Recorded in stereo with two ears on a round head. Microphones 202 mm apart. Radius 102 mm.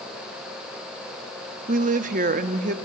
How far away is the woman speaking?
About 0.8 m.